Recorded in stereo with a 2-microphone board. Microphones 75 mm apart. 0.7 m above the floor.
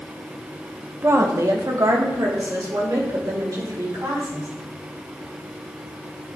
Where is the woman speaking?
35° right (ahead or behind), 0.8 m; by 4.5 s 55° right (ahead or behind), 3.5 m.